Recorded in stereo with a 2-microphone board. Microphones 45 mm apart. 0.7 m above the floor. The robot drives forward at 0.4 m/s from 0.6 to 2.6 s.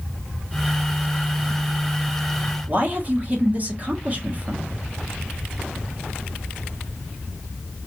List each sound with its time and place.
2.7 s a man speaking: 35° right (ahead or behind), 1.1 m